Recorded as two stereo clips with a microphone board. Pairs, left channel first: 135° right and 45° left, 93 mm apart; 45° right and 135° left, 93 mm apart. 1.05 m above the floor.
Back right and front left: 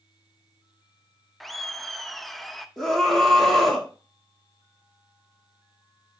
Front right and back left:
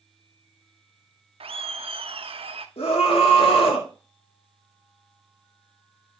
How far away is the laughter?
About 0.8 m.